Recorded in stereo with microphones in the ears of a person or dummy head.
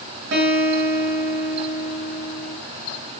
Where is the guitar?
75° right (ahead or behind), 7 m.